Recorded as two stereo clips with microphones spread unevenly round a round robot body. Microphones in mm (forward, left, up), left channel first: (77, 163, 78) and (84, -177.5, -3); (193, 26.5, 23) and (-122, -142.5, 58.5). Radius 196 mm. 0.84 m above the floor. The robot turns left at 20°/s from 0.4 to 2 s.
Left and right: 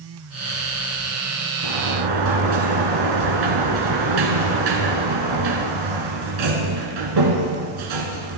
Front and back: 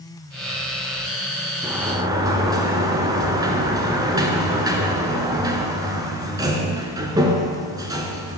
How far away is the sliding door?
About 1.7 m.